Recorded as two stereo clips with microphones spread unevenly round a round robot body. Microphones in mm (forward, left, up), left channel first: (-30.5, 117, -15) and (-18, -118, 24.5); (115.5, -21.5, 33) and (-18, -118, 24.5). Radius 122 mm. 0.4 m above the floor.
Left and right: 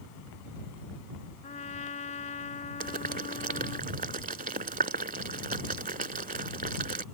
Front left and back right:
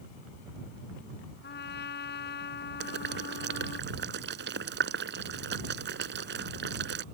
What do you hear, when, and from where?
1.4 s a trumpet: 30° left
2.8 s boiling: 145° right